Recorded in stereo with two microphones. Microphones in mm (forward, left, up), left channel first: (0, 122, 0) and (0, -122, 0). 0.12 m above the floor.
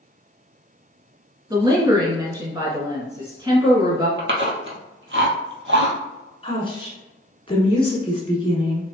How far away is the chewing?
About 1.0 m.